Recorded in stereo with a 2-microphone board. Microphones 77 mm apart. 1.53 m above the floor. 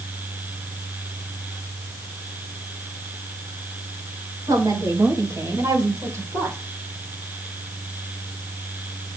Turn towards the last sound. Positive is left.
turn(degrees=-35)  # may be behind; listen again after turning